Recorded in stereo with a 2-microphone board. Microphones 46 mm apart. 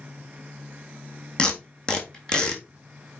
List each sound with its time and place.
1.4 s tape being pulled: 20° left (ahead or behind), 1.5 m